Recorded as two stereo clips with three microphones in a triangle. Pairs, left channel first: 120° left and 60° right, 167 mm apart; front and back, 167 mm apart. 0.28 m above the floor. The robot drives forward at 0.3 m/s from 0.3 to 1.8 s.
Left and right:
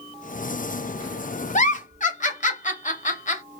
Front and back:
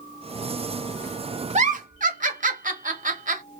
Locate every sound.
1.6 s a giggle: 145° left, 0.6 m; by 3.4 s 150° left, 0.7 m